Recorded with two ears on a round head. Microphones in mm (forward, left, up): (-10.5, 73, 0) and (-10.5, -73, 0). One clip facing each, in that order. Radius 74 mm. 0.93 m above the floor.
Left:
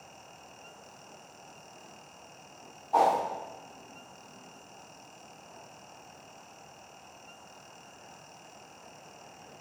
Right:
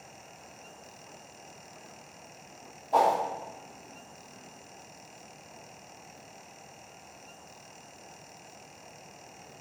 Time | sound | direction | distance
2.9 | a whoosh | 60° right (ahead or behind) | 1.7 m